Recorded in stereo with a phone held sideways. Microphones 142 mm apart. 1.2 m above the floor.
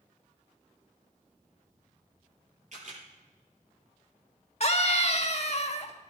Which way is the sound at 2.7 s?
65° right (ahead or behind).